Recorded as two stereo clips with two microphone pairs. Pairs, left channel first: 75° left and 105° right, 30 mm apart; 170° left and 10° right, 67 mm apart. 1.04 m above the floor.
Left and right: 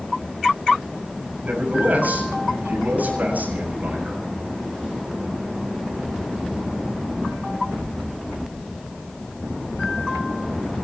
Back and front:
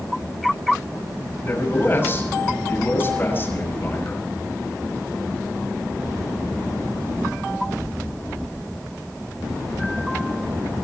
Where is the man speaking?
135° right, 7 m.